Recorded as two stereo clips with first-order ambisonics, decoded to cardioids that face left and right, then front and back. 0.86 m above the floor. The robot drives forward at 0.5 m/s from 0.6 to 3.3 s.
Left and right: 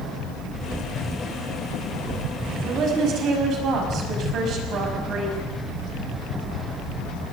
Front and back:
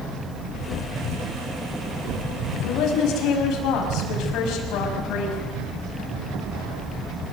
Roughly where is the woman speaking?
Ahead right.